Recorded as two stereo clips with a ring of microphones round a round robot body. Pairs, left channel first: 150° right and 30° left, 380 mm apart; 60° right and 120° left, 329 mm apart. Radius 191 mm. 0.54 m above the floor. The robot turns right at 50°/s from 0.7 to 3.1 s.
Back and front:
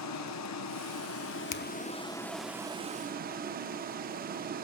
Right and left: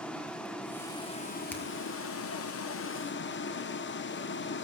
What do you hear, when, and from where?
0.0 s running water: 145° right, 0.9 m; by 4.6 s 25° right, 0.9 m
1.5 s a finger snap: 145° right, 0.8 m; by 1.6 s 135° right, 0.8 m